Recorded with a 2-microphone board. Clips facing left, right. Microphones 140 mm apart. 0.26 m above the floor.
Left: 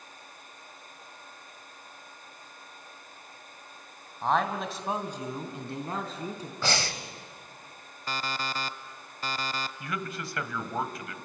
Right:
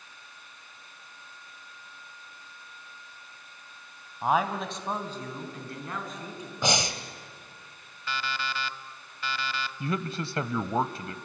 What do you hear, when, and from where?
4.2 s a man speaking: 10° right (ahead or behind), 2.0 m; by 6.5 s 35° left (ahead or behind), 3.5 m
6.6 s breathing: 20° right (ahead or behind), 1.2 m
8.1 s an alarm clock: 40° left (ahead or behind), 0.7 m
9.8 s a man speaking: 30° right (ahead or behind), 1.1 m